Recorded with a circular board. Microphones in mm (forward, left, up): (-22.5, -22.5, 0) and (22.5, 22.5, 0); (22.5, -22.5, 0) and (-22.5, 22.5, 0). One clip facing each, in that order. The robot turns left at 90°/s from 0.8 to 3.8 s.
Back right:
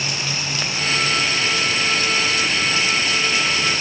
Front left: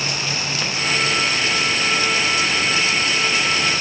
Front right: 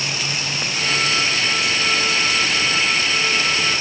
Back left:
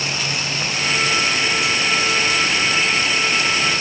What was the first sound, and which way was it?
Only background noise.